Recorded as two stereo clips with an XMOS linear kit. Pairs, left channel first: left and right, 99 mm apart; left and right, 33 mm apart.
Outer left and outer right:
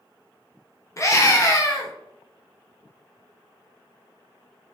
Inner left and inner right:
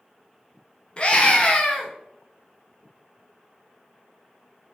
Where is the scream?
35° left (ahead or behind), 0.7 m.